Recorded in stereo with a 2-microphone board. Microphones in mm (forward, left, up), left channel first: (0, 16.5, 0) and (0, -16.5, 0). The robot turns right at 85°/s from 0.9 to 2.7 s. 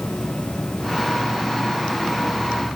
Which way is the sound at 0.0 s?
90° left.